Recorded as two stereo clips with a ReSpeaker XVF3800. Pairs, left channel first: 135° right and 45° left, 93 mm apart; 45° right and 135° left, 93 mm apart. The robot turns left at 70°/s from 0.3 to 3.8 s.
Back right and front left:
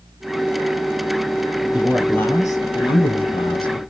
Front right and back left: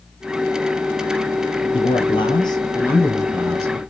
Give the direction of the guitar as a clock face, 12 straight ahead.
No guitar in this recording.